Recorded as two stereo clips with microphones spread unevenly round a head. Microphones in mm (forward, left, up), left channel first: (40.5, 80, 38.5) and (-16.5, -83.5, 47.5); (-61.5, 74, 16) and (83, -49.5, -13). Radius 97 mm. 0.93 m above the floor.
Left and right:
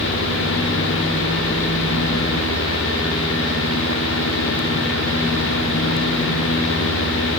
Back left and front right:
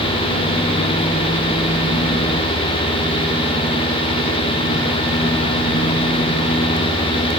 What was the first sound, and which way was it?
Only background noise.